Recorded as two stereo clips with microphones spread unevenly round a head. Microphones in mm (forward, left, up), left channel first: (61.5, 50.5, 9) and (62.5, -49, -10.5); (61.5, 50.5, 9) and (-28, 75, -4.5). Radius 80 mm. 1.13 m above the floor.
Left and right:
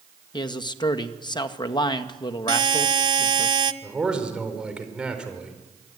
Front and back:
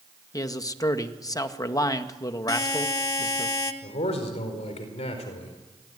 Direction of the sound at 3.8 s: 5° right.